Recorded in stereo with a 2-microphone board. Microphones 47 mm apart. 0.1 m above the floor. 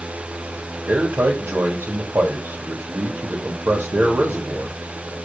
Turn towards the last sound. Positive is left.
turn(degrees=-50)  # may be behind; listen again after turning